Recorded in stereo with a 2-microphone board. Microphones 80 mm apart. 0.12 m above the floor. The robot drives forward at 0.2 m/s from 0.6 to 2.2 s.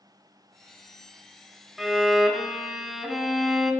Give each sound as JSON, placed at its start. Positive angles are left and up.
{"t": 1.8, "sound": "a violin", "side_deg": 0, "distance_m": 0.7}